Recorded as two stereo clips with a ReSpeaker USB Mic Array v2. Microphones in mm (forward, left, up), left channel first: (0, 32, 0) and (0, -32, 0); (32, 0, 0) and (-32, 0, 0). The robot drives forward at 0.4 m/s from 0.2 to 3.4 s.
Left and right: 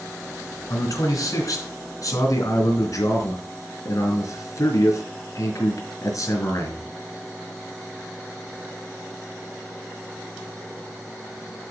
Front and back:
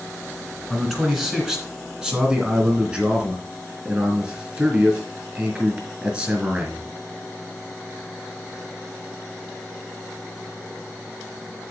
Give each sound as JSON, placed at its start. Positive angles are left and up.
{"t": 0.7, "sound": "a man speaking", "azimuth_deg": 95, "distance_m": 3.0}